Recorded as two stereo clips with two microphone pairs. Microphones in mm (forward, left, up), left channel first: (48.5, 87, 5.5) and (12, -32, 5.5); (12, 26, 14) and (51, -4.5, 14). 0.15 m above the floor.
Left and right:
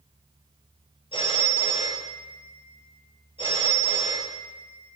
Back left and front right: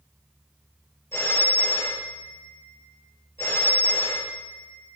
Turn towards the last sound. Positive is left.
turn(degrees=115)